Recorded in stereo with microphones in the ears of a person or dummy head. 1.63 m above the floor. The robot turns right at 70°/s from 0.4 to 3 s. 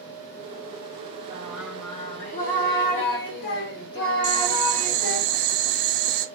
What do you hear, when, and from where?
1.3 s singing: 15° right, 2.0 m; by 5.2 s 105° left, 2.0 m
4.2 s boiling: 65° right (ahead or behind), 0.9 m